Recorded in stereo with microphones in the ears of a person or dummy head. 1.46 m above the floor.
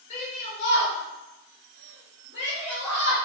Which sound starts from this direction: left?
A shout, at 0.1 s.